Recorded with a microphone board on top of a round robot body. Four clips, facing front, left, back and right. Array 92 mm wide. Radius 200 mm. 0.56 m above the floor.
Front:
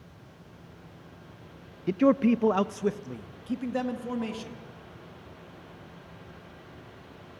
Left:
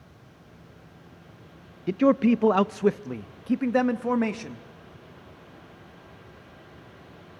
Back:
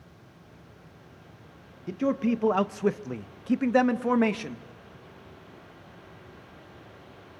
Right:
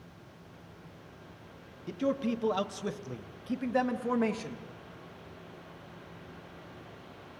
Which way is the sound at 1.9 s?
55° left.